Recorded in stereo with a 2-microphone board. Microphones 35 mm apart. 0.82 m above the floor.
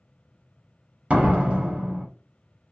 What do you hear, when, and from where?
1.1 s a door slam: 45° right (ahead or behind), 1.0 m